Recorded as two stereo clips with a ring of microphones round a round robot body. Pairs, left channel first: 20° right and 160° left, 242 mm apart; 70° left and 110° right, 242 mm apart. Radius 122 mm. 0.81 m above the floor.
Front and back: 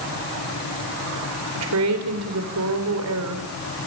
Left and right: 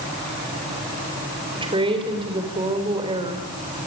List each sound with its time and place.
1.6 s a woman speaking: straight behind, 3.5 m